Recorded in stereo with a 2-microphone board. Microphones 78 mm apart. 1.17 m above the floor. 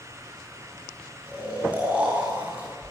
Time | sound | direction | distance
1.3 | snoring | 15° right (ahead or behind) | 9 m